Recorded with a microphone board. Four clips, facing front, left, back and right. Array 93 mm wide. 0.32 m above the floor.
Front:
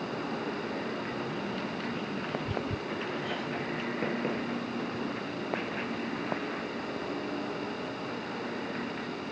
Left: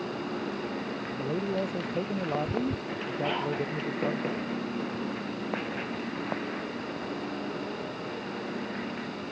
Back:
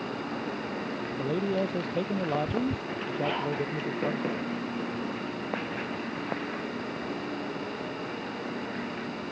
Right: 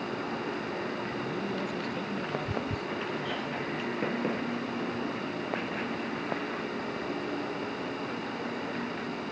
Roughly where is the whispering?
Behind left.